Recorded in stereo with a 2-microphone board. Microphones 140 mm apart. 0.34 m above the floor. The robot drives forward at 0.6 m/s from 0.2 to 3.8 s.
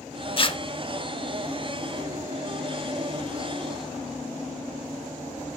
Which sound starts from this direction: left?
Tearing paper, at 0.4 s.